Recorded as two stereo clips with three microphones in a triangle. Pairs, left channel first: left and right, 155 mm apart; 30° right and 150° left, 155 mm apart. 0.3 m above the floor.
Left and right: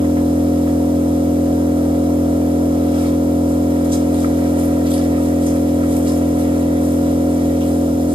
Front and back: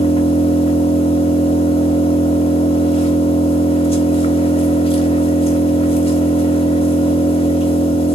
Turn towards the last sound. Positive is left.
turn(degrees=-55)